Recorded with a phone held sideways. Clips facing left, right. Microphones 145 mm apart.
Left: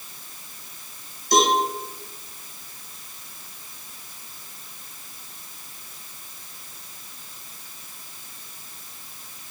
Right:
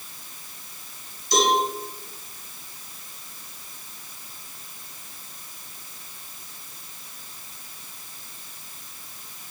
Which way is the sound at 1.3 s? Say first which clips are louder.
Left 2 dB; 50° left (ahead or behind).